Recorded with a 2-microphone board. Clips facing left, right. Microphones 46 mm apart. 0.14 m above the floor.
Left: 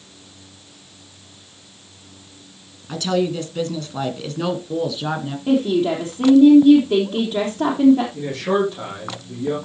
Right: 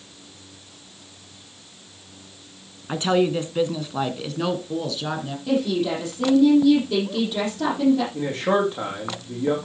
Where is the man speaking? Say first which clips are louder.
Left 1 dB; 30° right (ahead or behind), 6.5 m.